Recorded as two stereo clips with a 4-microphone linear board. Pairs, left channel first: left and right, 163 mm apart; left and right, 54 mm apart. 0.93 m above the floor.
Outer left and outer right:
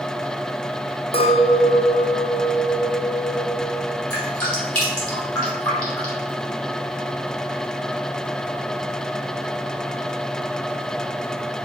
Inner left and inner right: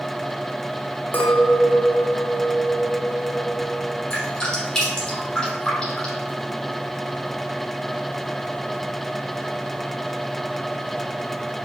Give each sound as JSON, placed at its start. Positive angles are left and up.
{"t": 1.1, "sound": "a clink", "side_deg": 35, "distance_m": 0.7}
{"t": 4.1, "sound": "dripping", "side_deg": 20, "distance_m": 2.0}